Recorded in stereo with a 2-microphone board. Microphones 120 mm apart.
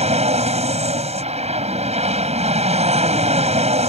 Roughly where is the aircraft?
Right.